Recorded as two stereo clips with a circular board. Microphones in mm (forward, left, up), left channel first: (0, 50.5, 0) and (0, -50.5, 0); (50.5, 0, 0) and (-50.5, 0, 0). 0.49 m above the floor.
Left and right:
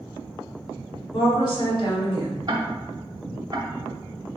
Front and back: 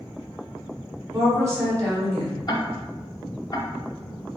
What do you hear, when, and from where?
1.1 s a woman speaking: 125° left, 2.0 m
2.5 s ticking: 40° right, 0.7 m